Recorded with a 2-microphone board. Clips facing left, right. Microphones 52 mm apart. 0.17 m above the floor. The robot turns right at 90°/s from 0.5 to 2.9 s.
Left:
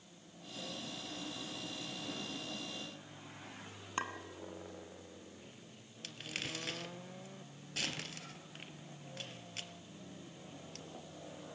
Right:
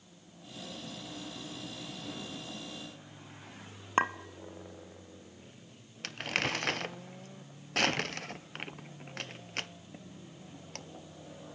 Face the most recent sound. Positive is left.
turn(degrees=-60)  # may be behind; listen again after turning